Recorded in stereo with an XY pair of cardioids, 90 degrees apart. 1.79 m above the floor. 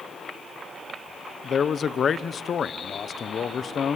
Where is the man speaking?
50° left, 1.0 m.